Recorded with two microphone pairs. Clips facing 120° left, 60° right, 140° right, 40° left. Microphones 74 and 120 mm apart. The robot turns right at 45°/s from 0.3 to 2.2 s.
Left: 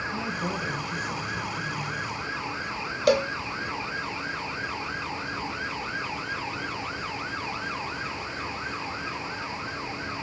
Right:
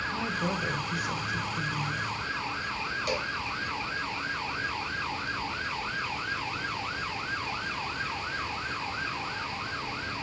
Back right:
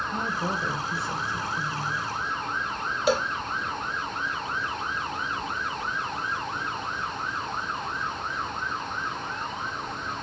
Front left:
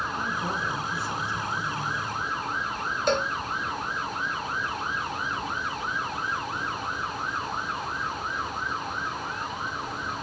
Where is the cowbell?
135° left, 0.6 m.